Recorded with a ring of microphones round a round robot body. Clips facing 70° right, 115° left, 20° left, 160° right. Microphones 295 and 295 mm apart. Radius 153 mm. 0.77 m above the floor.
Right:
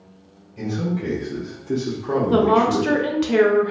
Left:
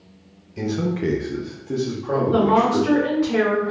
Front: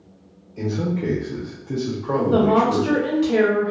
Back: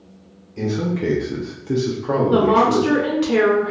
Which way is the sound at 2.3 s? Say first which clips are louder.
Right 1 dB, back 1 dB; 85° right.